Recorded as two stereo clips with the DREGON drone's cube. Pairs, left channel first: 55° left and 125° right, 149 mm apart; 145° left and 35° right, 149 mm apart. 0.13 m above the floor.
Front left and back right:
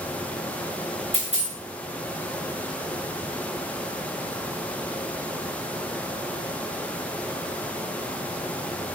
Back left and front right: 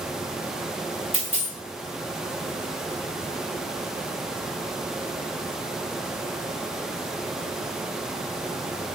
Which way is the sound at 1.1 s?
105° left.